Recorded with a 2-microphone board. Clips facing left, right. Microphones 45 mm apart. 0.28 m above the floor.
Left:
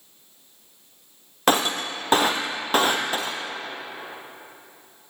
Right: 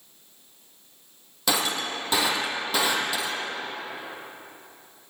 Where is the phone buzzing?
No phone buzzing in this recording.